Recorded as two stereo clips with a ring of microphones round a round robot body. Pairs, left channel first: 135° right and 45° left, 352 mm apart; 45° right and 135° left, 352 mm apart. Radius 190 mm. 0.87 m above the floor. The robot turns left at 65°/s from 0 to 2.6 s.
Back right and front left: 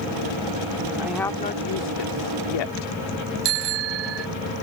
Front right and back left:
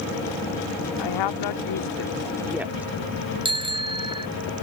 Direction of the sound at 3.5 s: 60° left.